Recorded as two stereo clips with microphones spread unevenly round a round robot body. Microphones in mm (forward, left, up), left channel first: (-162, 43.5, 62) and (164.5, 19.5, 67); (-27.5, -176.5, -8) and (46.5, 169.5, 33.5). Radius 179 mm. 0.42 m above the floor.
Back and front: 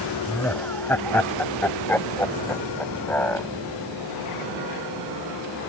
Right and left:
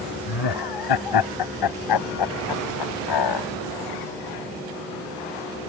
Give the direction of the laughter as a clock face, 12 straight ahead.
3 o'clock.